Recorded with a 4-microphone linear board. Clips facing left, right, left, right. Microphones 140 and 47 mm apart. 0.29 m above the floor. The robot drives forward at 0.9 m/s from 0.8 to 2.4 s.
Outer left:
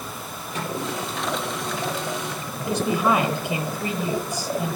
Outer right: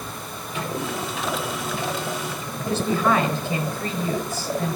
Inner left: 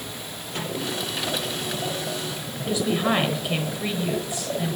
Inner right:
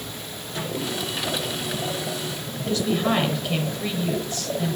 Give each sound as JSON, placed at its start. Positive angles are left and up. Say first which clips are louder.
{"t": 0.5, "sound": "a microwave", "louder": "even, inner right 1 dB", "side_deg": 40, "distance_m": 5.5}
{"t": 2.7, "sound": "a woman speaking", "louder": "even, even", "side_deg": 15, "distance_m": 0.9}